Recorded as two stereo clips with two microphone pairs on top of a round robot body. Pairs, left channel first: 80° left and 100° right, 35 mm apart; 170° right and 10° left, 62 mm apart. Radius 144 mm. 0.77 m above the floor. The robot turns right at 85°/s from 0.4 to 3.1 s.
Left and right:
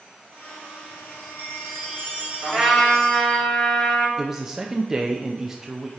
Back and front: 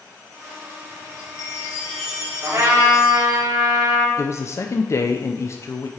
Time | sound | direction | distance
1.1 | a chime | 155° right | 2.5 m
2.4 | a trumpet | 35° right | 2 m
4.2 | a man speaking | straight behind | 0.5 m